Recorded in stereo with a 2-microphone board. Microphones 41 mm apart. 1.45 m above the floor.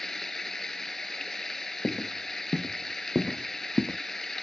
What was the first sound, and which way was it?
Running water, 10° left (ahead or behind).